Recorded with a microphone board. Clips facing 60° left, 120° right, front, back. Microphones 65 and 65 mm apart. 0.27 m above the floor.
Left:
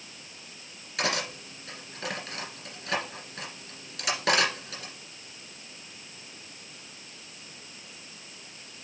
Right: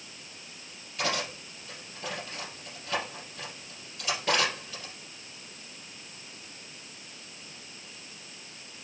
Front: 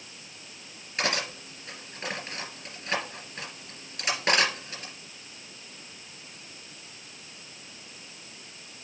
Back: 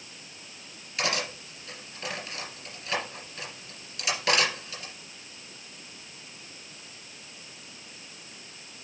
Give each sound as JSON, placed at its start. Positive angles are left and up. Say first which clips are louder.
{"t": 1.0, "sound": "cutlery clinking", "louder": "left 1 dB, even", "azimuth_deg": 60, "distance_m": 3.0}